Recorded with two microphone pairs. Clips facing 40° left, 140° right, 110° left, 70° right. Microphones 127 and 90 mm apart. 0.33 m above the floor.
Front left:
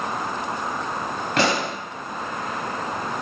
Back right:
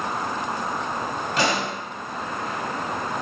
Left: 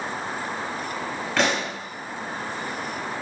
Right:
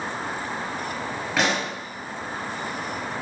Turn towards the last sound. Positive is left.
turn(degrees=15)